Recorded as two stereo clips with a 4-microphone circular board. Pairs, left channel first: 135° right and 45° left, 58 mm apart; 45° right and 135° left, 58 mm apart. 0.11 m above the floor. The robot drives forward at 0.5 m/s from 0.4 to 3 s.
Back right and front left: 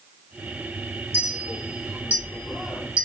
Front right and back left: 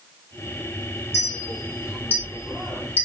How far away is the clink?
About 3 m.